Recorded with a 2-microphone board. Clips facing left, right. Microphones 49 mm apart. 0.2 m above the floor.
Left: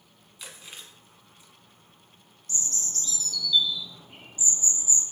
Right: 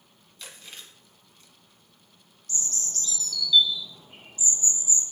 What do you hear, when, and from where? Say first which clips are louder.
0.4 s chewing: even; 15° left (ahead or behind), 1.4 m
2.5 s a bird: even; 35° left (ahead or behind), 1.7 m